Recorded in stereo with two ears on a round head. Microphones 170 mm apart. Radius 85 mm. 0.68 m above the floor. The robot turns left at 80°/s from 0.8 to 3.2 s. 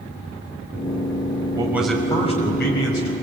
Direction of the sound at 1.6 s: 155° right.